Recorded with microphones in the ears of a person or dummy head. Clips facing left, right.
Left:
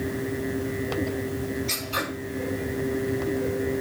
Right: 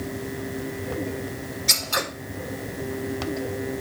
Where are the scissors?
80° right, 5 m.